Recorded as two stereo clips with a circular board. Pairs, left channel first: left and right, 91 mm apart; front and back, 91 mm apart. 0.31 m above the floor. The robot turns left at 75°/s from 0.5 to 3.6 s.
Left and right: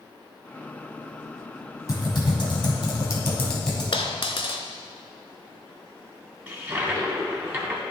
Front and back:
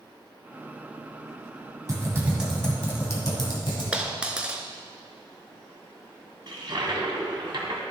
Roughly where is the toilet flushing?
Behind right.